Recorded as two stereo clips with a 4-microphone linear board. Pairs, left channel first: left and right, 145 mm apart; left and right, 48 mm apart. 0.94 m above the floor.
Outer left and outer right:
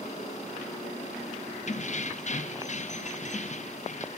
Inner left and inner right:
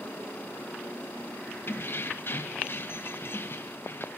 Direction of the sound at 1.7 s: 50° left (ahead or behind).